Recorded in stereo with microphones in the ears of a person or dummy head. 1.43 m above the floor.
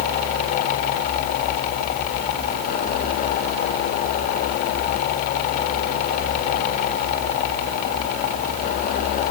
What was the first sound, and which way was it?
Only background noise.